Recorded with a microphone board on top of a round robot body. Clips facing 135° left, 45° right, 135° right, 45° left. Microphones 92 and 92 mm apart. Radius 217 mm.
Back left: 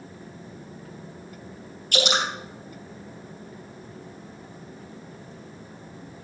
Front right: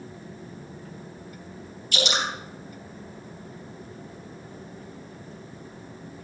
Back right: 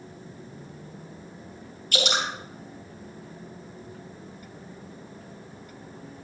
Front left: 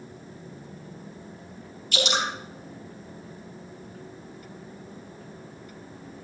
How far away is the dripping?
About 2.5 m.